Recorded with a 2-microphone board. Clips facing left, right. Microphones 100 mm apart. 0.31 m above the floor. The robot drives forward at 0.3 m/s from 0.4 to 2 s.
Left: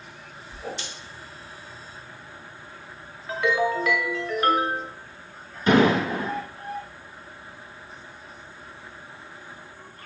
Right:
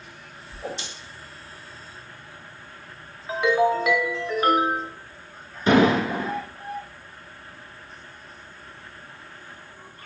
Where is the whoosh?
25° right (ahead or behind), 0.6 m.